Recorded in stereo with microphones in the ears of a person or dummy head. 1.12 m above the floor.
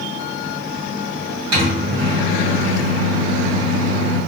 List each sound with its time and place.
1.5 s a microwave: 75° right (ahead or behind), 1.3 m